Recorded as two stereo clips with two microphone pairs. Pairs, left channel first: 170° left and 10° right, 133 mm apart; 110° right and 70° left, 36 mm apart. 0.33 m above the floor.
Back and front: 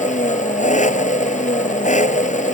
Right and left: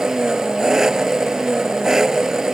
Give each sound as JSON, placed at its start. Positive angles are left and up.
{"t": 0.0, "sound": "an engine running", "azimuth_deg": 145}